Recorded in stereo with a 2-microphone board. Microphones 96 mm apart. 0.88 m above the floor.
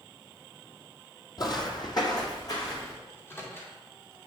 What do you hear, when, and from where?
1.4 s footsteps: 45° left (ahead or behind), 1.2 m; by 3.0 s 35° left (ahead or behind), 3 m
3.1 s a microwave: 25° left (ahead or behind), 2.0 m